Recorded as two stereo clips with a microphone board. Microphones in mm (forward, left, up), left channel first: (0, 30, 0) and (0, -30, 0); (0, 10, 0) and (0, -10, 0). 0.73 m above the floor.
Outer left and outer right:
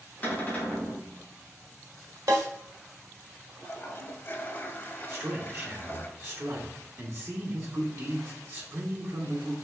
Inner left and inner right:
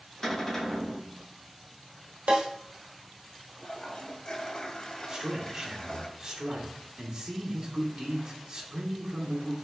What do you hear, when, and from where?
0.2 s a cupboard door: 25° left (ahead or behind), 1.9 m
2.3 s a snare drum: 65° right (ahead or behind), 1.3 m
3.6 s a toilet flushing: 40° left (ahead or behind), 0.7 m
5.1 s a man speaking: 45° right (ahead or behind), 1.4 m